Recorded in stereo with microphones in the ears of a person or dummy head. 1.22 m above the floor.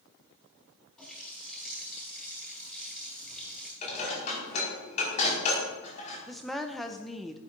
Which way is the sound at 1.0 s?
Centre (ahead or behind).